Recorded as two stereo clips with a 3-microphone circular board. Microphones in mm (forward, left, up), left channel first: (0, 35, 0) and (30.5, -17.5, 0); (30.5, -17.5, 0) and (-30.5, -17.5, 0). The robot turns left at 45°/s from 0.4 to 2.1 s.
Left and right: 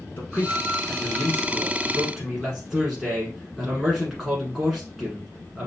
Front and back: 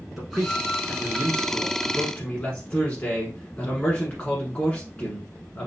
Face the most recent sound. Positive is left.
turn(degrees=25)